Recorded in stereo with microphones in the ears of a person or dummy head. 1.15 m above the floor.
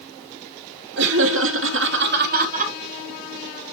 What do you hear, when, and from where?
1.0 s laughter: 60° right (ahead or behind), 1.2 m; by 2.7 s 35° right (ahead or behind), 1.5 m